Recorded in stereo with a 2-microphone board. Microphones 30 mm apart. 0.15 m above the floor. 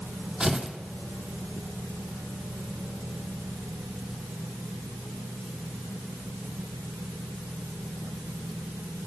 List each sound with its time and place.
0.4 s tearing paper: 25° right (ahead or behind), 1.5 m